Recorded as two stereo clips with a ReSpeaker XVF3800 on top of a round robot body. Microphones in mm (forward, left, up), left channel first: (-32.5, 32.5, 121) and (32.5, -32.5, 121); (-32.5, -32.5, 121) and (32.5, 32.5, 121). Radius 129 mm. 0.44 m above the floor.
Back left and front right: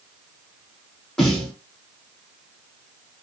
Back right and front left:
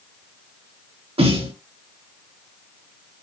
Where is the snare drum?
50° left, 5.5 m.